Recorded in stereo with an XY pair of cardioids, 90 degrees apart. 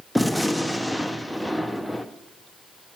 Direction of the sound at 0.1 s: Straight ahead.